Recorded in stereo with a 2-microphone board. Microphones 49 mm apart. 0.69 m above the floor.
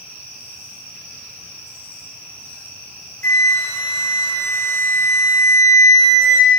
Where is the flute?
50° left (ahead or behind), 2 m.